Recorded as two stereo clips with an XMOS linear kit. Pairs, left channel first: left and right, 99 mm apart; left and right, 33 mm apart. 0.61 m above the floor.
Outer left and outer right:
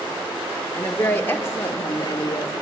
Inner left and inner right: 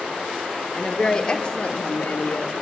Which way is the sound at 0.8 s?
15° left (ahead or behind).